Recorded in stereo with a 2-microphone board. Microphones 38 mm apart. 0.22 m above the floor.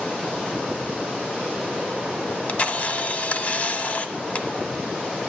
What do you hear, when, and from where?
2.3 s a camera shutter: 40° left (ahead or behind), 0.7 m